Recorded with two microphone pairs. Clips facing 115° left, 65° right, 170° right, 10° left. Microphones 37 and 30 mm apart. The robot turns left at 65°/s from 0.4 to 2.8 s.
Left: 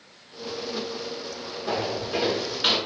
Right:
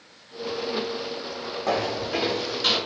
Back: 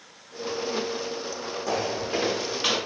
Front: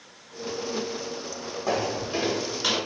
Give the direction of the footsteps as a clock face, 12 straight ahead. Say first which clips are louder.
Right 2 dB, front 1 dB; 2 o'clock.